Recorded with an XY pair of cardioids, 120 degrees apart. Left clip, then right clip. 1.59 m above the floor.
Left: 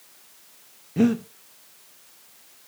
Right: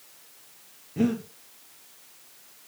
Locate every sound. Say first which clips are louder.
1.0 s breathing: left 5 dB; 30° left, 0.9 m